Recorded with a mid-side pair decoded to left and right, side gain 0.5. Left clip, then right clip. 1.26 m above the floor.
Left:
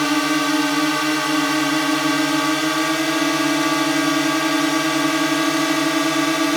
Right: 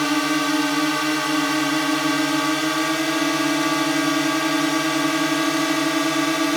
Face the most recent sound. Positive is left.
turn(degrees=20)